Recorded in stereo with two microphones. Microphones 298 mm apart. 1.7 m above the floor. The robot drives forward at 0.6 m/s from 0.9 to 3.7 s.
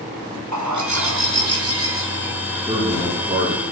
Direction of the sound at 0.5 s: 75° right (ahead or behind).